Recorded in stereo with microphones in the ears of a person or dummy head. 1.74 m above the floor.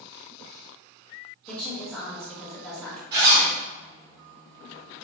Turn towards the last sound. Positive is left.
turn(degrees=-50)  # may be behind; listen again after turning